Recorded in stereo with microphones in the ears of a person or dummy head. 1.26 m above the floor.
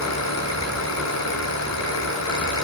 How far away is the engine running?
About 5.5 m.